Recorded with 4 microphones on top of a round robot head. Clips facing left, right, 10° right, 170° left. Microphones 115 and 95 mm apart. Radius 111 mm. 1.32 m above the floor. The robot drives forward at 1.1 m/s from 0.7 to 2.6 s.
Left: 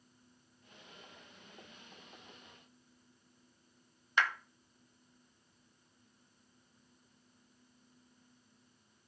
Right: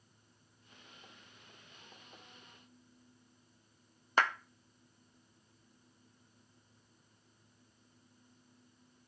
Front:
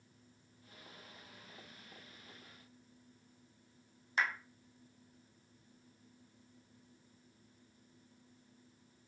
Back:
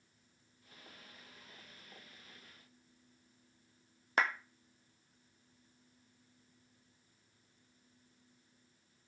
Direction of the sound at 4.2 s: 140° right.